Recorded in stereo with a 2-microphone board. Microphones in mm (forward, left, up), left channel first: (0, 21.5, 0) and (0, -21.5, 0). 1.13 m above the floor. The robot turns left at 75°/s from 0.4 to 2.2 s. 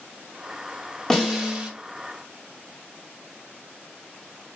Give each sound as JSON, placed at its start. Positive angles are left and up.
{"t": 1.1, "sound": "a snare drum", "azimuth_deg": 15, "distance_m": 0.8}